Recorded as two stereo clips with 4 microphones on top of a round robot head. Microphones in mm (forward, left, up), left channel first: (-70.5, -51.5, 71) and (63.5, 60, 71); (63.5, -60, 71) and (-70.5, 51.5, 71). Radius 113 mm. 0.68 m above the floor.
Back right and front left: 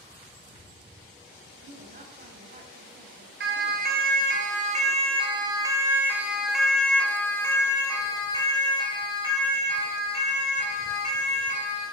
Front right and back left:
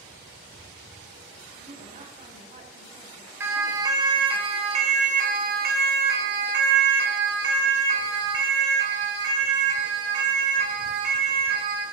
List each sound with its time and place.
1.6 s a woman speaking: 85° left, 5 m
3.4 s a siren: 65° left, 4 m; by 11.8 s 170° left, 8.5 m